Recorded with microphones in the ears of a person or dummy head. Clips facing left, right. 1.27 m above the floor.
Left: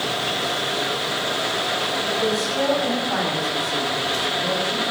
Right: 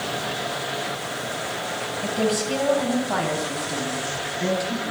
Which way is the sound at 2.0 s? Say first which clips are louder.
Right 2 dB; 55° right (ahead or behind).